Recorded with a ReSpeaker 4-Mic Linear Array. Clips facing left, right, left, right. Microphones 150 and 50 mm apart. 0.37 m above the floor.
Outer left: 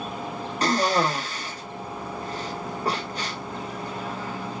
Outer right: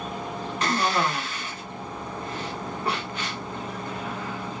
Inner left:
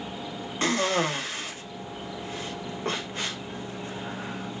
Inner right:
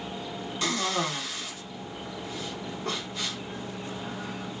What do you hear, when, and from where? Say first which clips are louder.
0.6 s a cough: outer left 3 dB, inner left 4 dB; 35° left (ahead or behind), 1.0 m